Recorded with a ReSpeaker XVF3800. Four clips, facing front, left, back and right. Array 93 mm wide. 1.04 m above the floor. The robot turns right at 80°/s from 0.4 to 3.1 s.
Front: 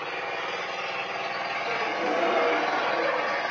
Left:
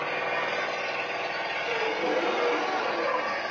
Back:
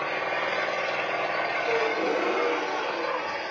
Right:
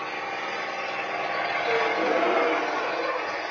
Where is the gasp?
105° right, 1.6 m; by 3.4 s 10° left, 1.6 m.